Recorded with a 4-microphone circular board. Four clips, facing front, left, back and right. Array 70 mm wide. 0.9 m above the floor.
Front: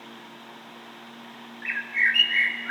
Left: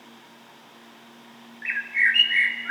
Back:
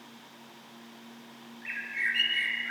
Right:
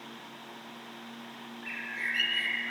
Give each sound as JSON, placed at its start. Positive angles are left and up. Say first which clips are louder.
{"t": 1.6, "sound": "a bird", "louder": "left 13 dB, front 8 dB", "azimuth_deg": 60, "distance_m": 1.9}